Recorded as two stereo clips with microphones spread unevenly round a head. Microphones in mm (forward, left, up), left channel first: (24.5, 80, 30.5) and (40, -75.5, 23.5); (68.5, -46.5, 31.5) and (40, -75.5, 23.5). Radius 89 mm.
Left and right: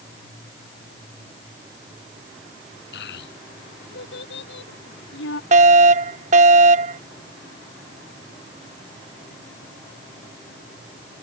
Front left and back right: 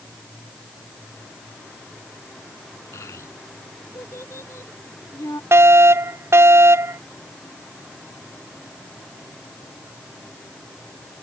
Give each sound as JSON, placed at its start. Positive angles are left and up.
{"t": 2.9, "sound": "a child speaking", "azimuth_deg": 85}
{"t": 5.5, "sound": "a fire alarm", "azimuth_deg": -135}